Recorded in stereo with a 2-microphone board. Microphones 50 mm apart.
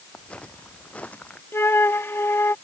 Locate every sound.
0.1 s footsteps: 25° left (ahead or behind); by 1.4 s 30° left (ahead or behind)
1.5 s a flute: 60° left (ahead or behind)